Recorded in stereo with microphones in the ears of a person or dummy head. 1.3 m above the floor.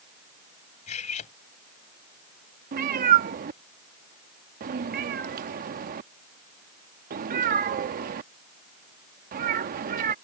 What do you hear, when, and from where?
0.9 s cutlery clinking: 40° left (ahead or behind)
2.7 s a cat meowing: 45° right (ahead or behind)